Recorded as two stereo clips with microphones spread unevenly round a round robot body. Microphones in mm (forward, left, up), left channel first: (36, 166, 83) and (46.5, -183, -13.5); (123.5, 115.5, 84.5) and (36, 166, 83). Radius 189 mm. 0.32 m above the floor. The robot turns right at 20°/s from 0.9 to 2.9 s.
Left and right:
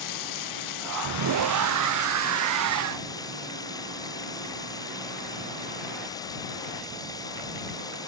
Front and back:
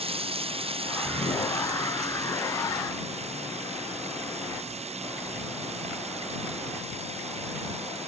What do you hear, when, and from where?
0.0 s running water: 130° left; by 8.1 s 170° left